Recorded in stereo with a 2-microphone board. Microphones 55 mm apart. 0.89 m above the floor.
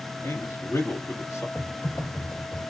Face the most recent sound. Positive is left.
turn(degrees=70)  # may be behind; listen again after turning